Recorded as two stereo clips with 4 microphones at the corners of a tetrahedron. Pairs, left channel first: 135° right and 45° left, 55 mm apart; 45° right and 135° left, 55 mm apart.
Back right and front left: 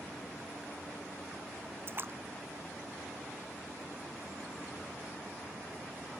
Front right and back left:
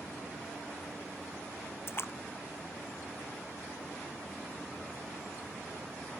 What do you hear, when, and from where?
1.9 s a splash: 5° right